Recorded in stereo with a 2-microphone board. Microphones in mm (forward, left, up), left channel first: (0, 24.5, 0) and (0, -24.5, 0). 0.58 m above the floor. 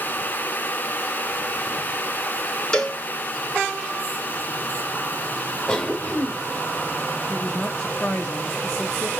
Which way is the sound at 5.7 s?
10° left (ahead or behind).